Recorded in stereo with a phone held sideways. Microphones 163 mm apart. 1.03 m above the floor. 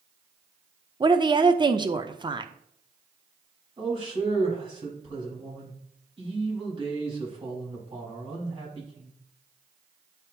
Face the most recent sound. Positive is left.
turn(degrees=-30)  # may be behind; listen again after turning